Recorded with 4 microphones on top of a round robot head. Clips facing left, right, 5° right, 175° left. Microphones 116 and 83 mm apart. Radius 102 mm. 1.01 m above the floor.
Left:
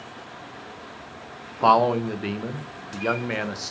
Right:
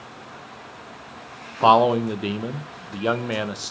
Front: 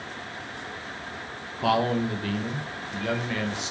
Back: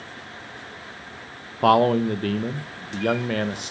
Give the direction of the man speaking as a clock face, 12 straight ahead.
5 o'clock.